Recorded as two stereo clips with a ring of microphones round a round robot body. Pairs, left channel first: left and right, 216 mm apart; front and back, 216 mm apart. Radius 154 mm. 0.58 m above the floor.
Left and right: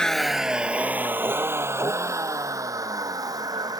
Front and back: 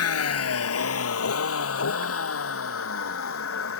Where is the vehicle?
5° left; by 3.8 s 15° right.